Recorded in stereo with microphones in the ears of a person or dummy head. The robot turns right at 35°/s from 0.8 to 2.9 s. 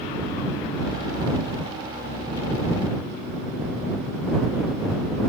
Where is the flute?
No flute in this recording.